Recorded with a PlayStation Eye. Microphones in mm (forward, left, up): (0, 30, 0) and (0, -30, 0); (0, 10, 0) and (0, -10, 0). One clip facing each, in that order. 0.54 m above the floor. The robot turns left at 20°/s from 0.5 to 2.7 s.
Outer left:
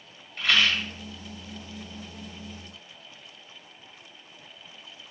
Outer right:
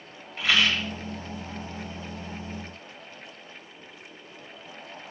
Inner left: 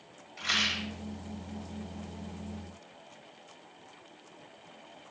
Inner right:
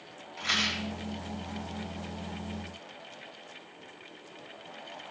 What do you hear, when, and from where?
0.4 s a rattle: 5° right (ahead or behind), 3.5 m; by 0.9 s centre (ahead or behind), 3.5 m